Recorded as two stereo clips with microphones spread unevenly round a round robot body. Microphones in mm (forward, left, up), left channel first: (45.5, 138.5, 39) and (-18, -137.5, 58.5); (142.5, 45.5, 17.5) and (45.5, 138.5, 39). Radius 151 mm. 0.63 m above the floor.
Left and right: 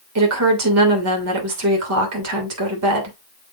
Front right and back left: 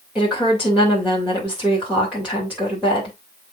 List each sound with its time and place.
0.1 s a woman speaking: 135° right, 3 m